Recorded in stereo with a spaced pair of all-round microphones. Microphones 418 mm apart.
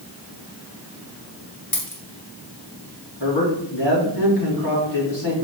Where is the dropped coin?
50° left (ahead or behind), 2.5 m.